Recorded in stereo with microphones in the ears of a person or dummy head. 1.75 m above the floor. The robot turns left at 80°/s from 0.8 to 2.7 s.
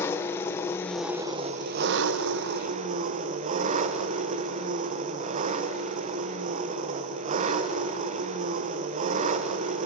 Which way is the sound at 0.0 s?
10° left.